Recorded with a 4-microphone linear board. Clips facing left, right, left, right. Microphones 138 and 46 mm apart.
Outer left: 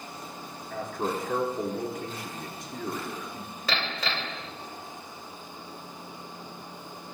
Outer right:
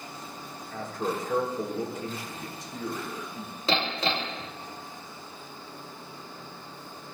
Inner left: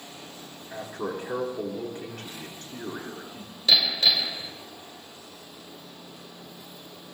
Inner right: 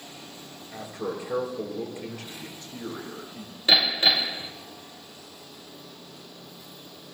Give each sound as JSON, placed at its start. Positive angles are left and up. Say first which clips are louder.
{"t": 0.7, "sound": "a man speaking", "louder": "outer left 1 dB, even", "side_deg": 60, "distance_m": 8.5}
{"t": 3.7, "sound": "hammering", "louder": "outer right 4 dB, inner right 1 dB", "side_deg": -25, "distance_m": 2.5}